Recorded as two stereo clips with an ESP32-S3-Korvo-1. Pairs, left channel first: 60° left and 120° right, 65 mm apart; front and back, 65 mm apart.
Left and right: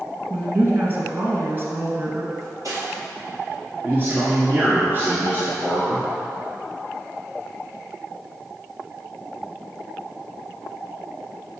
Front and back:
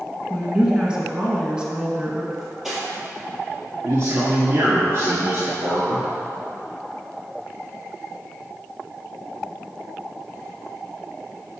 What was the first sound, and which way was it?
A woman speaking, 120° right.